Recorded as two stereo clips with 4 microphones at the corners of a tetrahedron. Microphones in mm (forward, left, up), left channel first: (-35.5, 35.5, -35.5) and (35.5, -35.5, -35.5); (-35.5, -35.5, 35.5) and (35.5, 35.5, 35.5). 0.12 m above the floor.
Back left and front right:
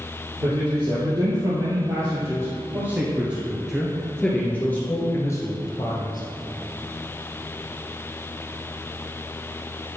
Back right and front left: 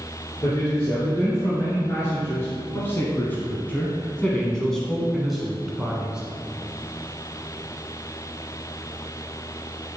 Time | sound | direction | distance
0.4 | a man speaking | 80° right | 3 m